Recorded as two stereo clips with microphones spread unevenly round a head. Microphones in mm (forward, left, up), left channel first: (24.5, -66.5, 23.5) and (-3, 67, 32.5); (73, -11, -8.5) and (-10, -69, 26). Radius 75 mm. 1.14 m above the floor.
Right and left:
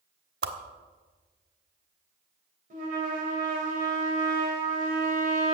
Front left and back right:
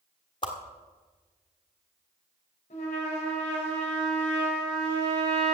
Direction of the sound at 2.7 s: 70° left.